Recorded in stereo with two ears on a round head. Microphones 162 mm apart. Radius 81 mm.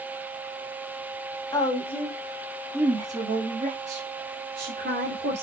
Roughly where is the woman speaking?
Left.